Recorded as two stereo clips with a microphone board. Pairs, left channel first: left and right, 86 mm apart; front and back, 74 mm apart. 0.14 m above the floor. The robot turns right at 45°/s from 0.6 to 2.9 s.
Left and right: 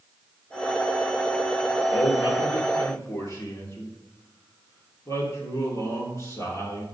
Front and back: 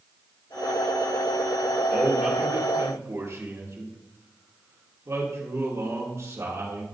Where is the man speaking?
90° left, 2.5 m; by 6.8 s 135° left, 2.5 m.